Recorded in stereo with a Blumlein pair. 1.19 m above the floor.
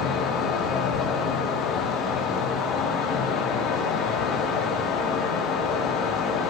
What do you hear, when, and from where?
0.0 s a fan: 25° left, 0.8 m